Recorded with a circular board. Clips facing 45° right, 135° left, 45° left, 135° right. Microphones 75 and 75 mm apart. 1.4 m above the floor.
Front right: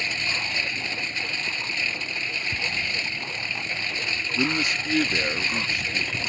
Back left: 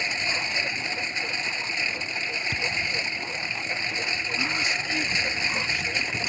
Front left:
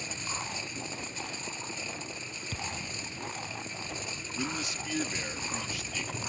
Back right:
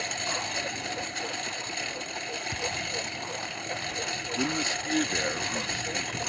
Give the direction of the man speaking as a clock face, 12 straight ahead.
3 o'clock.